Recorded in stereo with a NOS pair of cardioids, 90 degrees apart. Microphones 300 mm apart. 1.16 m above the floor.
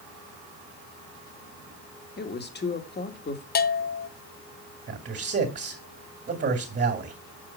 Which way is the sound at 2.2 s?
35° left.